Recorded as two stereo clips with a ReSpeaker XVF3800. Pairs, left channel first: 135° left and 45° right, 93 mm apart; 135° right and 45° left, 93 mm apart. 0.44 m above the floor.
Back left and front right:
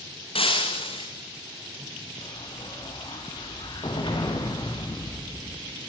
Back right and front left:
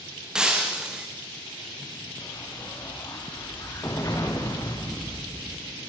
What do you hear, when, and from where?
0.3 s breaking glass: 125° left, 3 m
2.2 s an explosion: 165° left, 4.5 m